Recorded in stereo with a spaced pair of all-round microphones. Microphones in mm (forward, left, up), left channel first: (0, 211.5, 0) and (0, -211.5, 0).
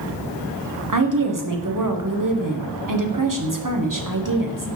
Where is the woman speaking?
50° right (ahead or behind), 1.0 m.